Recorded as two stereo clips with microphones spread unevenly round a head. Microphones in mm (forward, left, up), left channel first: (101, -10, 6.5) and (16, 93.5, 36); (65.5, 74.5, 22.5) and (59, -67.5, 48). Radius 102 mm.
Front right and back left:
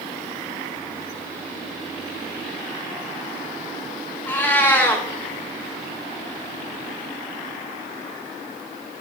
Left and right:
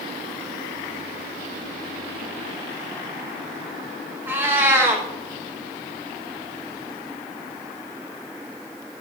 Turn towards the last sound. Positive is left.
turn(degrees=-140)